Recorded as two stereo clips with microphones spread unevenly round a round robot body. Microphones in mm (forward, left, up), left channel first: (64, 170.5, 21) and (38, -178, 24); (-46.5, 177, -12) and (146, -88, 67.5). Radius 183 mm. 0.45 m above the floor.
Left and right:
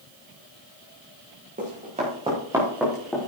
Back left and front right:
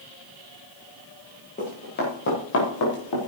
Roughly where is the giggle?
No giggle in this recording.